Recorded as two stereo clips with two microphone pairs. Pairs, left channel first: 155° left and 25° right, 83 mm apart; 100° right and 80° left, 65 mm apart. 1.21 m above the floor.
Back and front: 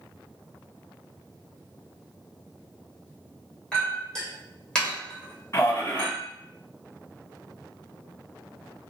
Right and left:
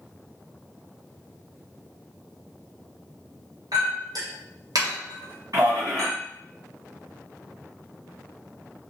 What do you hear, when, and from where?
3.7 s a clink: 75° left, 1.1 m
5.5 s a man speaking: 100° left, 1.5 m